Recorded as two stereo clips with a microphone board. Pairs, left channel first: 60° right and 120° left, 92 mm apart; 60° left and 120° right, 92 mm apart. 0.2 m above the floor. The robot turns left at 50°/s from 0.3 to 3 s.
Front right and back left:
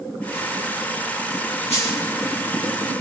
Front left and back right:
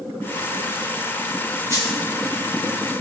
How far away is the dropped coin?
About 7 m.